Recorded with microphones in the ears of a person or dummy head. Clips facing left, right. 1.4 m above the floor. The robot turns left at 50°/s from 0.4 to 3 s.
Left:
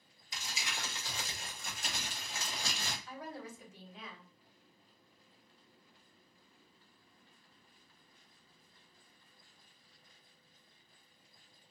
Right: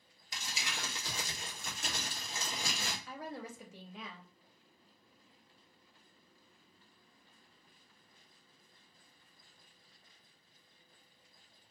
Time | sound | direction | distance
0.3 | crumpling | 55° right | 1.1 m
3.1 | a woman speaking | 55° right (ahead or behind) | 1.0 m